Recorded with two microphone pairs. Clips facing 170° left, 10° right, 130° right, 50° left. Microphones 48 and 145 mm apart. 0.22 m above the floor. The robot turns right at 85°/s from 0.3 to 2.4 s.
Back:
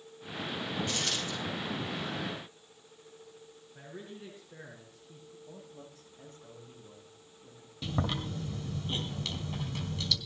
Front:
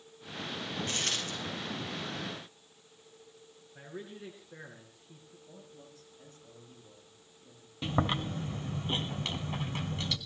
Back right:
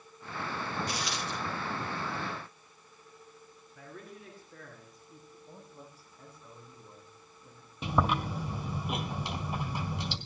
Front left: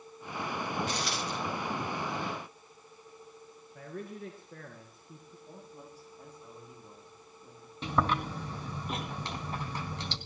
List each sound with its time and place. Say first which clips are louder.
0.9 s a dropped coin: back 1 dB, front left 1 dB; 55° right, 7 m; by 1.3 s 15° right, 7 m
3.8 s a man speaking: front 2 dB, front left 6 dB; 65° left, 3 m
5.5 s a man speaking: back 2 dB, front left 3 dB; 130° left, 10 m
7.8 s chewing: front 3 dB, back right 1 dB; 55° right, 1.8 m